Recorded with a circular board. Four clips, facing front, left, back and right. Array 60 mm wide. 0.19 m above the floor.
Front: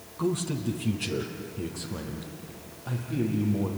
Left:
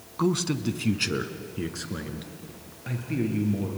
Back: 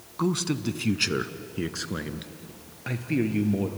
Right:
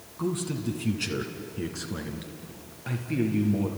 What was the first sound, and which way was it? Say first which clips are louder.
A man speaking: left 4 dB, back 2 dB; 125° left.